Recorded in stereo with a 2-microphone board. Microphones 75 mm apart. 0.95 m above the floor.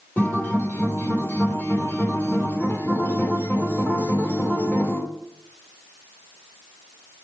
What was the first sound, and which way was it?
A guitar, 25° left (ahead or behind).